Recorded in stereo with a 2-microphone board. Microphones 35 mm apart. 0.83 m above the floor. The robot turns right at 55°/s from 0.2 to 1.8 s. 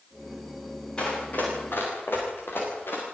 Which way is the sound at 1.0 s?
30° left (ahead or behind).